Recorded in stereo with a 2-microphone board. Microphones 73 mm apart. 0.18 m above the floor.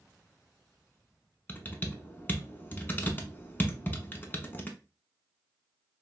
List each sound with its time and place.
1.5 s typing on a keyboard: 25° left (ahead or behind), 0.6 m